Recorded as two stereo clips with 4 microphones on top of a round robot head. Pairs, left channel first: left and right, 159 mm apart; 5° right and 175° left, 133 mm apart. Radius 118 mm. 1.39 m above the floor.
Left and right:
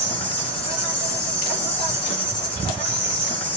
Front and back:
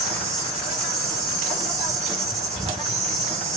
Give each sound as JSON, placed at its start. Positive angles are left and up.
{"t": 0.0, "sound": "an insect", "azimuth_deg": 145, "distance_m": 2.5}